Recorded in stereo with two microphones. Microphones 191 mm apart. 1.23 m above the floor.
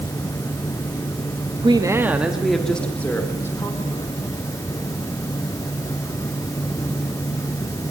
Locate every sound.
1.6 s a woman speaking: 25° right (ahead or behind), 1.5 m; by 4.1 s 15° left (ahead or behind), 4.5 m